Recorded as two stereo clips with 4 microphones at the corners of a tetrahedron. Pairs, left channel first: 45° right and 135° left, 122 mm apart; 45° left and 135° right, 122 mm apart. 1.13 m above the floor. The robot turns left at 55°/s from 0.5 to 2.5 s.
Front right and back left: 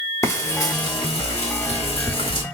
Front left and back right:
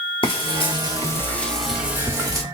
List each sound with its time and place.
0.2 s frying: 20° left, 0.9 m; by 2.4 s 90° right, 0.9 m